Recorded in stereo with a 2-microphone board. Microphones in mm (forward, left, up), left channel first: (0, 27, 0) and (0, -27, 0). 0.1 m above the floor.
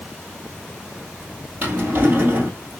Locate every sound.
1.6 s a drawer: 40° right (ahead or behind), 1.9 m